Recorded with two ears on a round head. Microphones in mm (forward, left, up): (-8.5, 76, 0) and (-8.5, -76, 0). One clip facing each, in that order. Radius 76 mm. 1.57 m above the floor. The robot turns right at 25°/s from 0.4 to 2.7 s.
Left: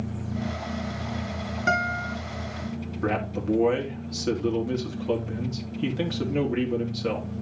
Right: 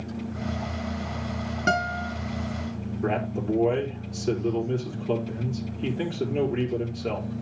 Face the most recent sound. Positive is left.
turn(degrees=80)